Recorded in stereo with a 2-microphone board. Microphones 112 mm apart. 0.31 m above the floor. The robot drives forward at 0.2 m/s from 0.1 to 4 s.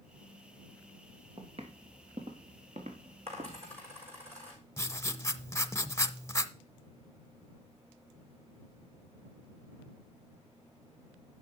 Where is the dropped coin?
65° right (ahead or behind), 5.5 m.